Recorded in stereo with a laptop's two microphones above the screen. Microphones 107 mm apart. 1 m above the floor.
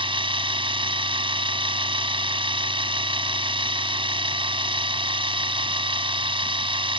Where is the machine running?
55° right (ahead or behind).